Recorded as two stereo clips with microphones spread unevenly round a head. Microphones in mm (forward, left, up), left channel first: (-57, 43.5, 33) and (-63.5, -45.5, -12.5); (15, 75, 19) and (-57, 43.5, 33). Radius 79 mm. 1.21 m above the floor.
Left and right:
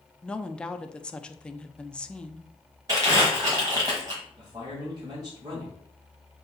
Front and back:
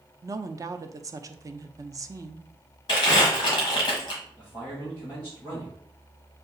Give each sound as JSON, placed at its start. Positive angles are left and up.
{"t": 0.2, "sound": "a woman speaking", "azimuth_deg": 160, "distance_m": 0.5}
{"t": 2.9, "sound": "crumpling", "azimuth_deg": -30, "distance_m": 1.2}
{"t": 4.4, "sound": "a man speaking", "azimuth_deg": -45, "distance_m": 2.5}